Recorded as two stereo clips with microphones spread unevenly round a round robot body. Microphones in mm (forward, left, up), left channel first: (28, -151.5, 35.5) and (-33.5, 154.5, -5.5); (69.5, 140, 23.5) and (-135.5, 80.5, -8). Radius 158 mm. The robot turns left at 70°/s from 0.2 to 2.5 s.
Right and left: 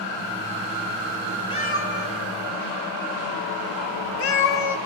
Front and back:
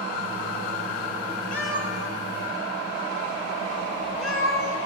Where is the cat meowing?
5° right, 1.7 m; by 4.8 s 75° right, 1.7 m.